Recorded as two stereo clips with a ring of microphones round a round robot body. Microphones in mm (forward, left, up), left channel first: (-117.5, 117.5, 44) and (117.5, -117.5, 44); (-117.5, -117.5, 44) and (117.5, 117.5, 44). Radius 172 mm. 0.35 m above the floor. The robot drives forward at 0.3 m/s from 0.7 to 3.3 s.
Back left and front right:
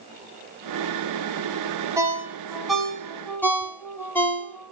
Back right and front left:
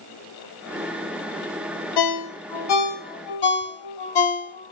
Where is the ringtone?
125° right, 1.0 m; by 4.7 s 140° right, 1.3 m.